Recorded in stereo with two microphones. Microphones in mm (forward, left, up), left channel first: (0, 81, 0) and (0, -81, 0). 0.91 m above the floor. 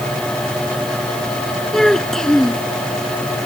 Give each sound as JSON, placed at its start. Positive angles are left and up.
{"t": 1.7, "sound": "a child speaking", "side_deg": 5}